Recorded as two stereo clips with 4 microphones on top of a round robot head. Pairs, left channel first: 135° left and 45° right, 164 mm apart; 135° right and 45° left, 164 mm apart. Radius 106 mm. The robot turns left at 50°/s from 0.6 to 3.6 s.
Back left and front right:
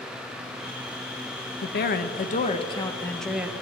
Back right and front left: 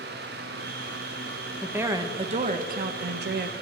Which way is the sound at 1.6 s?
130° left.